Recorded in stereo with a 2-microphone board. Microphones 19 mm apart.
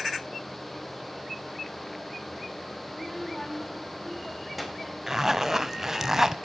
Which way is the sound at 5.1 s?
25° right (ahead or behind).